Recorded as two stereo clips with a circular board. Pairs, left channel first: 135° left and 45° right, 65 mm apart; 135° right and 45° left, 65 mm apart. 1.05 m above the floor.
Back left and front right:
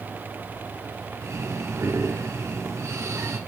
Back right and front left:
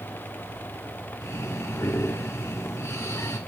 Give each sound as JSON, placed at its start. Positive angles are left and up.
{"t": 1.2, "sound": "breathing", "azimuth_deg": -90, "distance_m": 1.6}